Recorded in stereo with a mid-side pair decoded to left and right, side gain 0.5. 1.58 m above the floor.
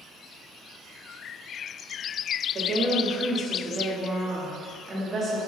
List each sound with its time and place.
2.5 s a woman speaking: 40° right, 0.9 m